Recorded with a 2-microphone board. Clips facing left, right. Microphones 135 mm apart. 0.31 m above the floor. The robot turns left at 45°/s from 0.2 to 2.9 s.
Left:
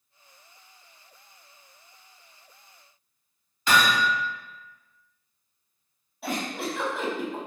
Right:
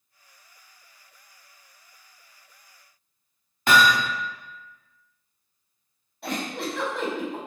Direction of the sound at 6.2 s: 5° left (ahead or behind).